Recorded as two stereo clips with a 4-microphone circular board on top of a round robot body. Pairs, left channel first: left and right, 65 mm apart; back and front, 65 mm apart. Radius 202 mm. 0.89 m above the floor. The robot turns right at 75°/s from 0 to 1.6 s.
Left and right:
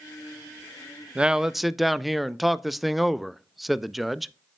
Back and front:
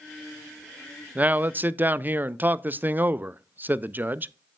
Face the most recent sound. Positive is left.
turn(degrees=0)